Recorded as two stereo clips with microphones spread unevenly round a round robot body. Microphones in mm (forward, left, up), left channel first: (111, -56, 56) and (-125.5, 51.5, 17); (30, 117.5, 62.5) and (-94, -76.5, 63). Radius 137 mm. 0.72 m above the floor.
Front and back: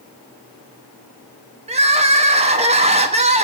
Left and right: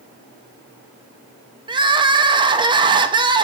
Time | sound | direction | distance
1.7 | crying | straight behind | 0.8 m